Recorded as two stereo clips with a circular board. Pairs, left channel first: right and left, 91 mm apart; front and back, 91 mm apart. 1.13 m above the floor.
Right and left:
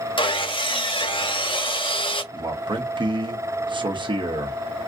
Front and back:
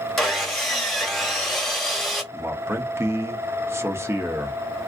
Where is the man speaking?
120° left, 0.9 m.